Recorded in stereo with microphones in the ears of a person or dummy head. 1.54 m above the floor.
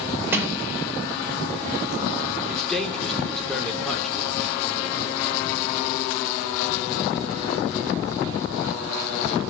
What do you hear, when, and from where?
0.3 s a sliding door: 10° right (ahead or behind), 4 m
2.5 s a man speaking: 5° left (ahead or behind), 3.5 m